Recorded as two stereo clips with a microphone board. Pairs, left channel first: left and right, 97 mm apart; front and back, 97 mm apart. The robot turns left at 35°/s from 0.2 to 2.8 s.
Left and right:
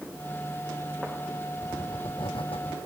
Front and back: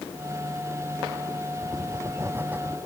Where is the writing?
140° left; by 2.8 s 100° left.